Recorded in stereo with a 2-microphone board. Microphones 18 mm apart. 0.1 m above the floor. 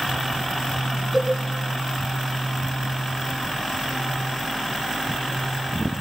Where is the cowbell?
5° right (ahead or behind), 4.5 m.